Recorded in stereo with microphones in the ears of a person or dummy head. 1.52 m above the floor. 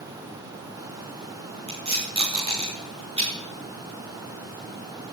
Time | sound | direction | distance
1.7 | tape being pulled | 25° right (ahead or behind) | 4.5 m